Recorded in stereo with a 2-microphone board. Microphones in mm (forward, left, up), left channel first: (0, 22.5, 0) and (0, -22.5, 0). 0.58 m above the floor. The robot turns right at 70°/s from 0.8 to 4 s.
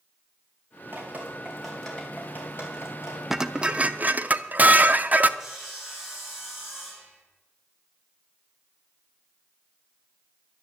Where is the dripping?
55° right (ahead or behind), 3.5 m; by 3.2 s 70° left (ahead or behind), 3.5 m.